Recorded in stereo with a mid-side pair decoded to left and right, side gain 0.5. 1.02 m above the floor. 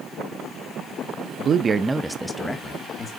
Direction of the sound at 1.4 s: 55° right.